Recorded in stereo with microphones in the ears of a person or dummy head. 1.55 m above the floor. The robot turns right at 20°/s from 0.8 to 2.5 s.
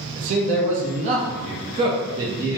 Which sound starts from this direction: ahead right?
A man speaking, at 0.2 s.